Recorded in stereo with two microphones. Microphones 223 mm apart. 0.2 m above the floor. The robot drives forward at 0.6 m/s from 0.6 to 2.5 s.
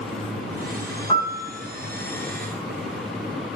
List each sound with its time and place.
1.1 s a piano: 25° left (ahead or behind), 1.8 m